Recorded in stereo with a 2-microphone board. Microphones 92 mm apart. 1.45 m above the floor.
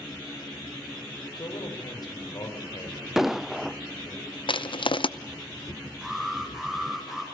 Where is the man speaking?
50° left (ahead or behind), 7 m; by 4.2 s 40° left (ahead or behind), 8.5 m.